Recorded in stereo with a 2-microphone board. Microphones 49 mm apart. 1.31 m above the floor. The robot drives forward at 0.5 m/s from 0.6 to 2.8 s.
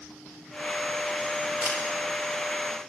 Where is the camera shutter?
45° right (ahead or behind), 4.5 m.